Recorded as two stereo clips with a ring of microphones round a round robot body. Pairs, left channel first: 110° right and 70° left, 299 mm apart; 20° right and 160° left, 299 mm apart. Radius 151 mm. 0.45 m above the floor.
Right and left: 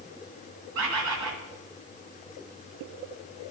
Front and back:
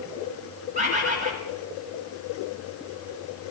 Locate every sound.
0.8 s a bird: 90° left, 1.6 m